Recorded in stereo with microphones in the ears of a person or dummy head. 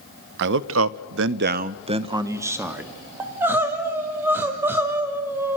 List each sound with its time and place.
0.4 s a man speaking: 55° right (ahead or behind), 0.8 m; by 2.9 s 10° right (ahead or behind), 1.4 m
3.2 s crying: 10° right (ahead or behind), 2 m